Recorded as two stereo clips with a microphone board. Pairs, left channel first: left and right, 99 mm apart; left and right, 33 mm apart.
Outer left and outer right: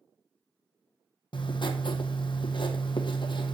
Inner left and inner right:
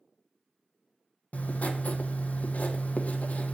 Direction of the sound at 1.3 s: 55° left (ahead or behind).